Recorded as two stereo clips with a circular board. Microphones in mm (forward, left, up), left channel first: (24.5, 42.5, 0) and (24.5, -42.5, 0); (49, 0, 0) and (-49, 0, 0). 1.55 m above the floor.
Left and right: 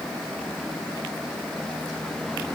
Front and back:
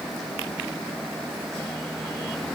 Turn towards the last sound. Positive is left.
No sound to turn to.